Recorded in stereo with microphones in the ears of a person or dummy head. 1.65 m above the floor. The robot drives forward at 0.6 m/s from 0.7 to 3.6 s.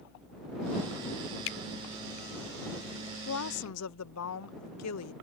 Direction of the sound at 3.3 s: 85° left.